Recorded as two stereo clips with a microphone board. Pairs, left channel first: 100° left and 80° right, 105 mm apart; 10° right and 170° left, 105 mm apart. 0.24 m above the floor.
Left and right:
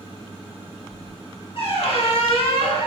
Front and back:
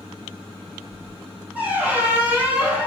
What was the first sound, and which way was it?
A squeak, 100° left.